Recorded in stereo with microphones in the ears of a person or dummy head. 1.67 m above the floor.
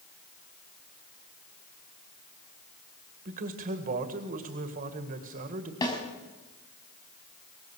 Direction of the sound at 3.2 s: 45° right (ahead or behind).